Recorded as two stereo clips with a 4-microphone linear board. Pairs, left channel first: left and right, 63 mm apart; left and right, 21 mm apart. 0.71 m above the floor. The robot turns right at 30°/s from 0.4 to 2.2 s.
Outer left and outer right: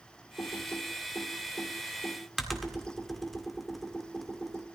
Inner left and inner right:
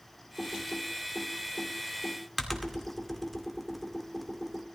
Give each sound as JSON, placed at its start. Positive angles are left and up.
{"t": 0.4, "sound": "typing on a keyboard", "side_deg": 50, "distance_m": 1.9}